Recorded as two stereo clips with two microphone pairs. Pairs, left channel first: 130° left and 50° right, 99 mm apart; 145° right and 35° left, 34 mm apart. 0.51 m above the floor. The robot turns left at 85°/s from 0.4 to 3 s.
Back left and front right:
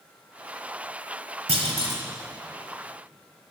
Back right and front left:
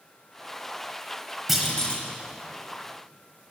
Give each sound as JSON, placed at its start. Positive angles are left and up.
{"t": 1.5, "sound": "a clunk", "azimuth_deg": -50, "distance_m": 1.4}